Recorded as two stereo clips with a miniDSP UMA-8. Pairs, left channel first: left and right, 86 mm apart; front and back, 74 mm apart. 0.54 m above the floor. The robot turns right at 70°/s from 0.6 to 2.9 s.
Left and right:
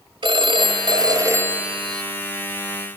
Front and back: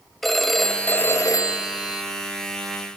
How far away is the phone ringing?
About 1.9 m.